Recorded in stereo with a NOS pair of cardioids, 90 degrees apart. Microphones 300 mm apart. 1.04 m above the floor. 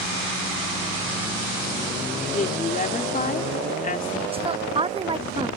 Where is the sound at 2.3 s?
30° left.